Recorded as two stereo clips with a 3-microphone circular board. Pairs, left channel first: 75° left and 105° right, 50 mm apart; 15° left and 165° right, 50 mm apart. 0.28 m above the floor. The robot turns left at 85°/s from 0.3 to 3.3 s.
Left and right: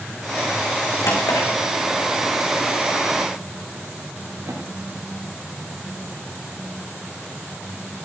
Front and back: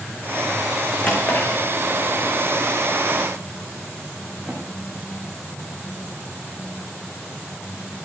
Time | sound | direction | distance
1.0 | a drawer | 90° left | 5 m